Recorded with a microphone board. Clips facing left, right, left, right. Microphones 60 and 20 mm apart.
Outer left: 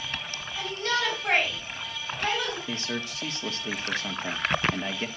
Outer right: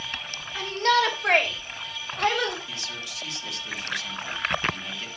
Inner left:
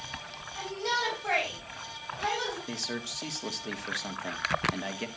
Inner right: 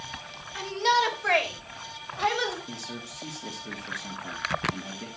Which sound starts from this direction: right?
A shout, at 0.6 s.